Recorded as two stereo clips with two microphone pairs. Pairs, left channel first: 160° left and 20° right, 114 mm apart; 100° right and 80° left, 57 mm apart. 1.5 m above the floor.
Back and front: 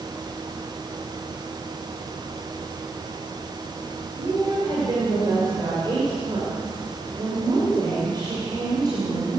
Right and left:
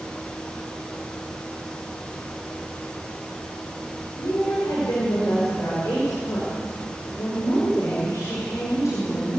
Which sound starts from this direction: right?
A woman speaking, at 4.2 s.